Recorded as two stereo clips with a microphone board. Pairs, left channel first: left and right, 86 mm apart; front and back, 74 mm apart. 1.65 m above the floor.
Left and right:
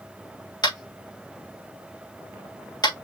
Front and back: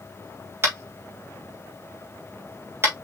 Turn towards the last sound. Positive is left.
turn(degrees=125)